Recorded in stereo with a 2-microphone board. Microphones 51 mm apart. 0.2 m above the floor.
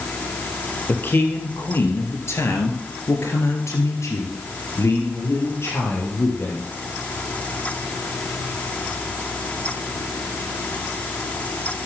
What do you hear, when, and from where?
0.9 s a man speaking: 40° left (ahead or behind), 4 m; by 6.6 s 45° left (ahead or behind), 5 m